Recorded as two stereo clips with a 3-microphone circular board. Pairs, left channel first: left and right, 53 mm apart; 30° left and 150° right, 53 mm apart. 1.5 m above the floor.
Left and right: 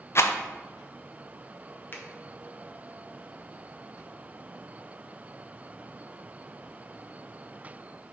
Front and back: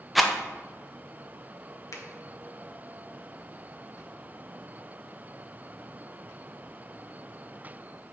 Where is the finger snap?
40° left, 1.0 m.